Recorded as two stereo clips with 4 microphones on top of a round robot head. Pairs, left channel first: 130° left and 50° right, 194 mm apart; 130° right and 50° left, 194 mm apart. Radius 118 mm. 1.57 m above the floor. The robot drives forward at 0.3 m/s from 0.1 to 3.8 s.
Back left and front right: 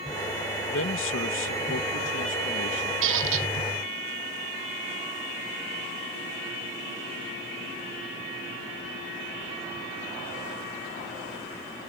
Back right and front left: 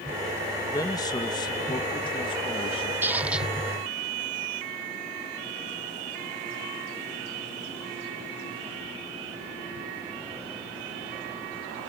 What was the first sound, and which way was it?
A man speaking, 155° left.